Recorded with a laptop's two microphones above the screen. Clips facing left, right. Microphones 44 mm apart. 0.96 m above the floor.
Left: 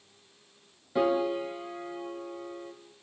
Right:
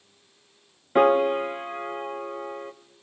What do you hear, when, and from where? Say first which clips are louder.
0.9 s a piano: right 7 dB; 50° right (ahead or behind), 1.1 m